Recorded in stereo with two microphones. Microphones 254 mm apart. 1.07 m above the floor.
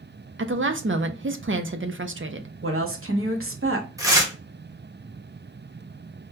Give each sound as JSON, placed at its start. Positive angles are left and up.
{"t": 0.4, "sound": "a woman speaking", "side_deg": -50, "distance_m": 0.5}
{"t": 2.6, "sound": "a woman speaking", "side_deg": -55, "distance_m": 1.0}
{"t": 4.0, "sound": "tearing paper", "side_deg": -15, "distance_m": 0.8}